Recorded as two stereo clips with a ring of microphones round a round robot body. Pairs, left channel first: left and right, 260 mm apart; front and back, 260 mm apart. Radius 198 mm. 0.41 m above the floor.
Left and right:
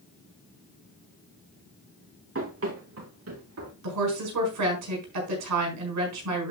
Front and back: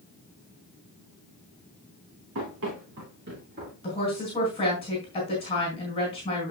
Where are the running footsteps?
125° right, 4.5 m; by 3.7 s 110° right, 5 m.